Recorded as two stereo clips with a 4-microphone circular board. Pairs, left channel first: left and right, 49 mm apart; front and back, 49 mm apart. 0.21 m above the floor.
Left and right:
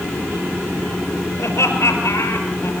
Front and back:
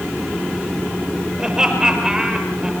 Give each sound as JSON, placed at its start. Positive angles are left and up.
{"t": 1.4, "sound": "laughter", "azimuth_deg": 105, "distance_m": 5.5}